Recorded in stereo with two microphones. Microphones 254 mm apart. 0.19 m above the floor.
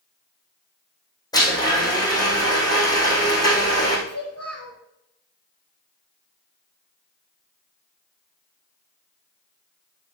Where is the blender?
15° left (ahead or behind), 4 m.